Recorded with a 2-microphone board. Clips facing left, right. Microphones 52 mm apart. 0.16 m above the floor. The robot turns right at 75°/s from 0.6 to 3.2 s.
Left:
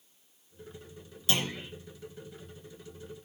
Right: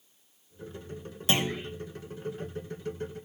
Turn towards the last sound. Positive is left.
turn(degrees=110)